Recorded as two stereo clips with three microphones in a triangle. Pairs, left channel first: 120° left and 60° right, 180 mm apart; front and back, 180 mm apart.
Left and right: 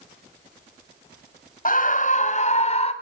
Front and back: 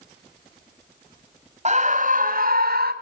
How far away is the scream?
About 1.8 m.